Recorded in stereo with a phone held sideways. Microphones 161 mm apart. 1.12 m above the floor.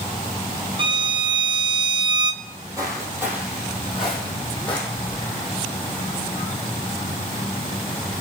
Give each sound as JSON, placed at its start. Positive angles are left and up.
{"t": 0.8, "sound": "a violin", "side_deg": -30, "distance_m": 0.6}
{"t": 2.4, "sound": "footsteps", "side_deg": -30, "distance_m": 2.5}